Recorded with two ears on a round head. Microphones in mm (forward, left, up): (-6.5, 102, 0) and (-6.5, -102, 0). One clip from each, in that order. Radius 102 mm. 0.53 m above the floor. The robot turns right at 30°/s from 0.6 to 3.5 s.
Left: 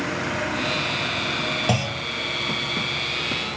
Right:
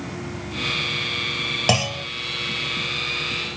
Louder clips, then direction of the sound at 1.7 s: Right 3 dB; 40° right (ahead or behind).